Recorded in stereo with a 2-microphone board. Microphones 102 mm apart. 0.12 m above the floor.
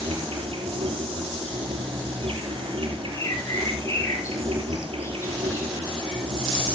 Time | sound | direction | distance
0.0 | an insect | 60° right (ahead or behind) | 5 m
3.1 | a bird | 30° left (ahead or behind) | 4.5 m